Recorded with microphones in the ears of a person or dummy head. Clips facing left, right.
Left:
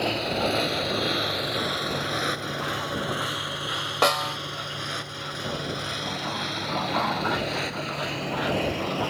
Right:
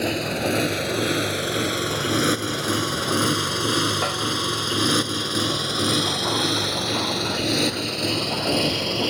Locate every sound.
0.0 s a motorcycle: 25° right (ahead or behind); by 9.1 s 55° right (ahead or behind)
4.0 s a snare drum: 70° left (ahead or behind)